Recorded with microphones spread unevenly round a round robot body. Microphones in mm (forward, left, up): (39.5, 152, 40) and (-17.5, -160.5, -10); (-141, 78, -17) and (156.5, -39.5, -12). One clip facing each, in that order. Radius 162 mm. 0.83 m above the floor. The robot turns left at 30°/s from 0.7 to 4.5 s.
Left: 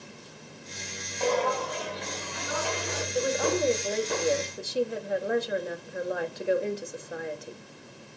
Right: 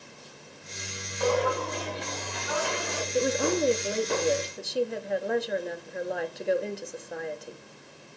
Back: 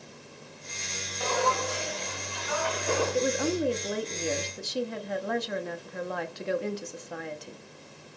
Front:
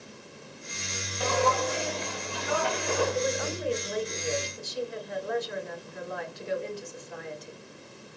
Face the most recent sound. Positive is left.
turn(degrees=170)